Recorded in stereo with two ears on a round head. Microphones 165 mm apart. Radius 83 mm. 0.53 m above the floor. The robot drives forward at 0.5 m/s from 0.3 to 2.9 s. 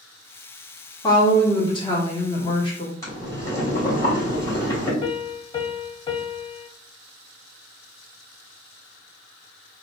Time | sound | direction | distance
1.0 | a woman speaking | 25° left (ahead or behind) | 1.5 m
3.0 | boiling | 20° left (ahead or behind) | 2.5 m
5.0 | a piano | 25° left (ahead or behind) | 0.9 m